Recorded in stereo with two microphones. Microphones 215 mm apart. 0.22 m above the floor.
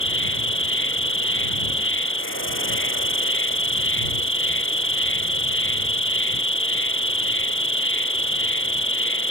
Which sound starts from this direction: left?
An insect, at 0.0 s.